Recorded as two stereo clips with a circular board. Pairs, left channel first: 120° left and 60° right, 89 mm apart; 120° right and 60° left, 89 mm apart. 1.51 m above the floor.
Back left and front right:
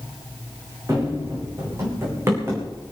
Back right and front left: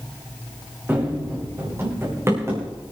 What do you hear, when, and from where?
0.9 s running footsteps: 5° right, 5 m; by 2.7 s 5° left, 6.5 m